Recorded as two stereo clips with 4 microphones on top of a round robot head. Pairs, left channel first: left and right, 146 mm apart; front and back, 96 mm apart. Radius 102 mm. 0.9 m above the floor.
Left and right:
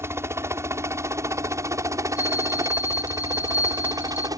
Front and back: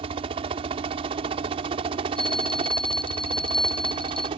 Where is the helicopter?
160° right; by 4.4 s 155° right.